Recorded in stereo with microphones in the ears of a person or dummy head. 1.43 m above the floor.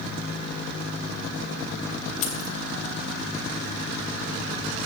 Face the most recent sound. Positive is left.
turn(degrees=40)  # may be behind; listen again after turning